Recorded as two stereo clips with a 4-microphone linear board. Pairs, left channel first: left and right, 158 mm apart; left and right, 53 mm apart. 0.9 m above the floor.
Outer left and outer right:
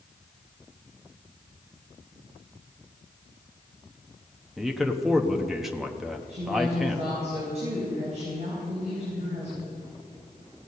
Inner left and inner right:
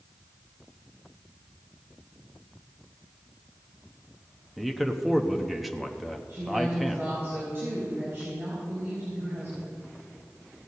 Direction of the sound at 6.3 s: 45° right (ahead or behind).